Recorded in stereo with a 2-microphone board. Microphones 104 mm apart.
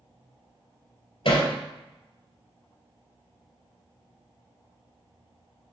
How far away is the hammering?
About 2 m.